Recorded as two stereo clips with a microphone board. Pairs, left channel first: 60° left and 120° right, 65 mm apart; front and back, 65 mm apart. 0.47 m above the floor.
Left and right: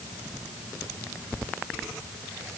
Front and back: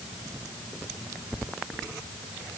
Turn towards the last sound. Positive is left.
No sound to turn to.